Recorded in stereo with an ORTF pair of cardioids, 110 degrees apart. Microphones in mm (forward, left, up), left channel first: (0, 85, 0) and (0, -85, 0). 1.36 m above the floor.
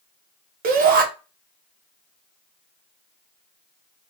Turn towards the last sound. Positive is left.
turn(degrees=-55)